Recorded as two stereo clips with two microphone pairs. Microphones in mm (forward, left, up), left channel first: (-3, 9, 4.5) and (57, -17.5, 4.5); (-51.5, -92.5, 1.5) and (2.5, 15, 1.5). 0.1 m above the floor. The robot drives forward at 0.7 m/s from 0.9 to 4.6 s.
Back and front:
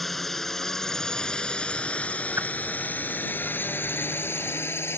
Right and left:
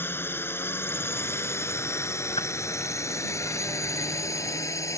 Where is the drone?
120° right; by 5.0 s 170° right.